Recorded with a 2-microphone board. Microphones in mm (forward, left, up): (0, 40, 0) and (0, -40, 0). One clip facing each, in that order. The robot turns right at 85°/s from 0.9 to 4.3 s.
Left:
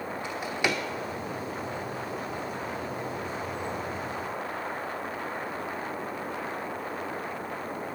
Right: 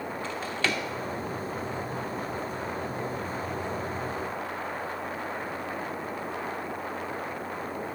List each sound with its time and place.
0.2 s a drawer: 15° left (ahead or behind), 0.9 m